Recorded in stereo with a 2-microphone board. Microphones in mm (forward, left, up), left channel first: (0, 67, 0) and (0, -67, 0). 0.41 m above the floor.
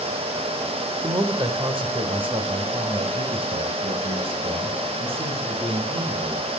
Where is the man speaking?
30° right (ahead or behind), 1.0 m; by 6.5 s 45° right (ahead or behind), 4.5 m.